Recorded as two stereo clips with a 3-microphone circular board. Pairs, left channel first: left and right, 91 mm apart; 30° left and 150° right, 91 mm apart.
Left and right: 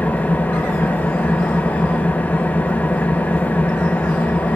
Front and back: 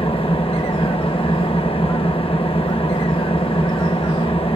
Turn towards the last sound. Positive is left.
turn(degrees=20)